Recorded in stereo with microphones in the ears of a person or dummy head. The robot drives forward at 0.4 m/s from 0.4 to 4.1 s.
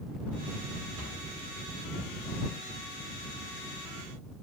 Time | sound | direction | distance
1.0 | a cupboard door | 65° right (ahead or behind) | 2.5 m